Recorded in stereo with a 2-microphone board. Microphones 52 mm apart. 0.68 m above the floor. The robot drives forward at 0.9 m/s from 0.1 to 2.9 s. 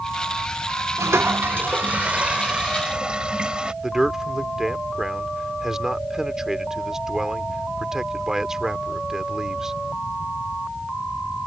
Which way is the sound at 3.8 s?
10° right (ahead or behind).